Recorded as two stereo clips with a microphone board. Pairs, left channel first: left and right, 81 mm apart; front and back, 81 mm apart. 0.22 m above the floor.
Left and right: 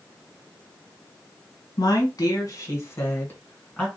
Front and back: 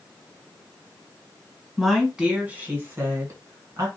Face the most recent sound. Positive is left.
turn(degrees=165)